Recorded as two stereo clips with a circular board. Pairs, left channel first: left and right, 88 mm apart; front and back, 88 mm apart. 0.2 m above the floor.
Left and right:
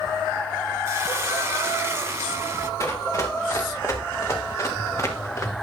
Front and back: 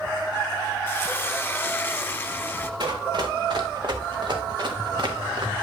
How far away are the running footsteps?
About 4 m.